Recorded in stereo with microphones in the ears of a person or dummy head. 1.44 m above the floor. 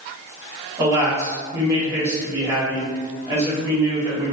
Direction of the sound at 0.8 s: 20° right (ahead or behind).